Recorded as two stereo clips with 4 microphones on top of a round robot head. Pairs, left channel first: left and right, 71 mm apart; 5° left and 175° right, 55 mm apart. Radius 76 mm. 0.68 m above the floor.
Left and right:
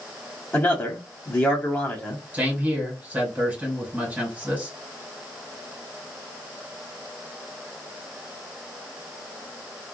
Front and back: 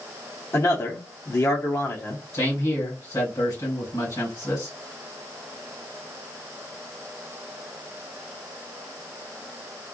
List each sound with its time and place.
0.5 s a man speaking: 25° left, 1.3 m
2.3 s a man speaking: 20° right, 2.5 m